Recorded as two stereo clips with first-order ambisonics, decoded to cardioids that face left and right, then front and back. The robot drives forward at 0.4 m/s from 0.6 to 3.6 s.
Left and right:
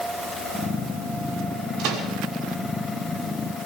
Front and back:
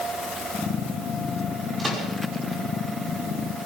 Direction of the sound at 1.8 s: 105° right.